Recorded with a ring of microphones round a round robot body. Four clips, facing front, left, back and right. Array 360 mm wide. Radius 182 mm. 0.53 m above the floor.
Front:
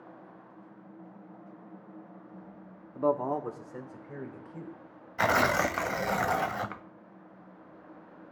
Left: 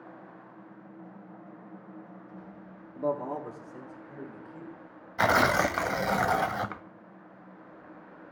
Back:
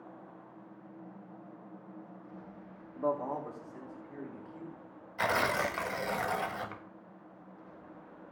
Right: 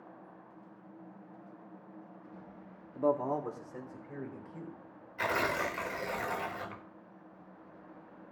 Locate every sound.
3.0 s a man speaking: 5° right, 1.0 m; by 4.8 s 20° right, 3.5 m
5.2 s tearing paper: 65° left, 0.6 m